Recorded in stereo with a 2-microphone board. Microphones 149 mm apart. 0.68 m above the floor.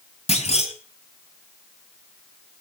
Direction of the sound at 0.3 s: 45° left (ahead or behind).